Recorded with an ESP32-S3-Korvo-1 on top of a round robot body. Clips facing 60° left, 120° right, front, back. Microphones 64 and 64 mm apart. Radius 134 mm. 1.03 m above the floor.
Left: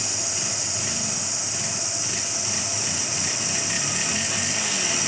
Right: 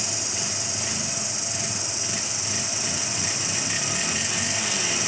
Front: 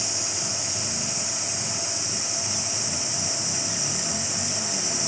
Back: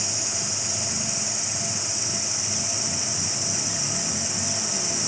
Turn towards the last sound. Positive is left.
turn(degrees=105)